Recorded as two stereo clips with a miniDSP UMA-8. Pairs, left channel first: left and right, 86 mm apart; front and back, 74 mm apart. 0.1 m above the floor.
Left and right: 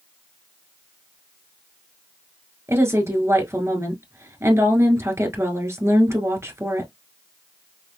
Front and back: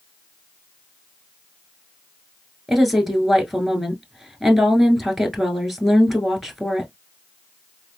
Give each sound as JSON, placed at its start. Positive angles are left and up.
{"t": 2.7, "sound": "a woman speaking", "azimuth_deg": -95, "distance_m": 1.5}